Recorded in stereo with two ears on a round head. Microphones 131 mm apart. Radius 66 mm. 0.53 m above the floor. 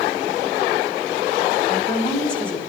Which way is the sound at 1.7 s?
10° left (ahead or behind).